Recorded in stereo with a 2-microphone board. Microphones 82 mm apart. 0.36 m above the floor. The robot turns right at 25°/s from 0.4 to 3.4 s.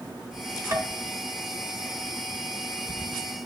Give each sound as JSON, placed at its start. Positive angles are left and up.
{"t": 0.7, "sound": "tapping", "side_deg": -35, "distance_m": 1.2}